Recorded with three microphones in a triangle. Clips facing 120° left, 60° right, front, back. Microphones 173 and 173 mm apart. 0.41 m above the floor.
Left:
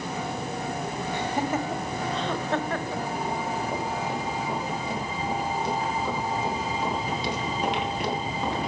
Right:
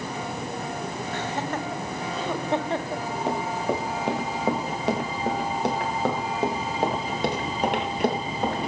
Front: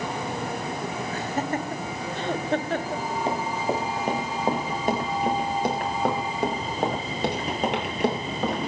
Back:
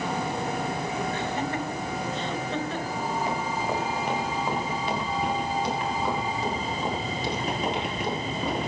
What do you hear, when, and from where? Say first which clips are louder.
1.1 s laughter: left 3 dB, front 1 dB; 45° left, 1.9 m; by 3.0 s 5° right, 1.4 m
3.3 s running footsteps: right 3 dB, front 2 dB; 60° right, 4.5 m; by 8.6 s 20° right, 5.5 m